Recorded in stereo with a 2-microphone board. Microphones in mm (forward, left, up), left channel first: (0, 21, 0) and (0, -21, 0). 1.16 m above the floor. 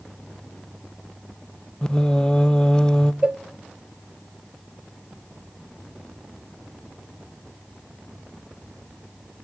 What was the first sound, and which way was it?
Singing, 20° left (ahead or behind).